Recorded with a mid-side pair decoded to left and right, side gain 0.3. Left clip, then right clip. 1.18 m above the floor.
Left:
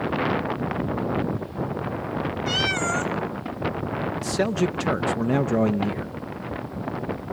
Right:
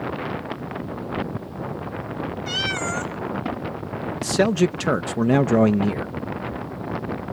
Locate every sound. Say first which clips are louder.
2.5 s a cat meowing: left 1 dB; 15° left, 1.6 m
4.2 s a man speaking: right 6 dB; 50° right, 0.6 m